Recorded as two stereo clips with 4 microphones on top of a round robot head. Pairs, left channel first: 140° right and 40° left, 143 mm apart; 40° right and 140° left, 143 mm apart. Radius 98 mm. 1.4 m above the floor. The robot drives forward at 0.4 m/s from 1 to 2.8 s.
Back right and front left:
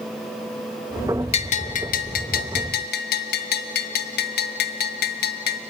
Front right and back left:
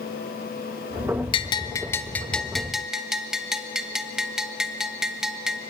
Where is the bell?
95° right, 0.8 m; by 5.6 s 130° right, 1.0 m.